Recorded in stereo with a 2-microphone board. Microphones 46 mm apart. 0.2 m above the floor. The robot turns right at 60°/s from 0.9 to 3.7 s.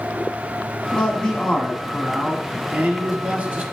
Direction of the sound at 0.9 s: 130° left.